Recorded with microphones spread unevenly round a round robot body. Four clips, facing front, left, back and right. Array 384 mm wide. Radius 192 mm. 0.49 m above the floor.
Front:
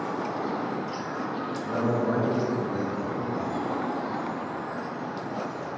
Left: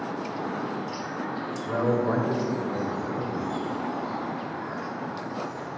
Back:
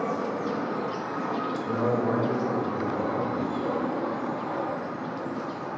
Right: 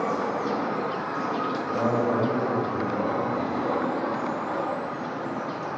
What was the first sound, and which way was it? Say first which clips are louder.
A man speaking: left 1 dB, even; 140° left.